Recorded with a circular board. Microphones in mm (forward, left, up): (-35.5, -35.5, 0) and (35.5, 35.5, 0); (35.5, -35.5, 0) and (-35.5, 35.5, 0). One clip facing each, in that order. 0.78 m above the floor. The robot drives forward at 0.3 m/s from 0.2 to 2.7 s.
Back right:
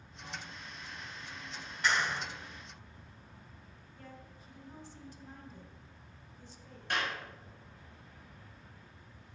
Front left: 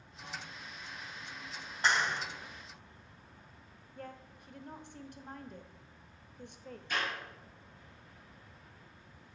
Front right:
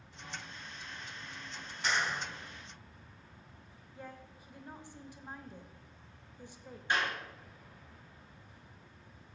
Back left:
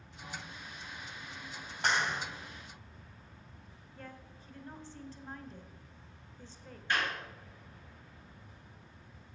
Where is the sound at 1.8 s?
105° left, 2 m.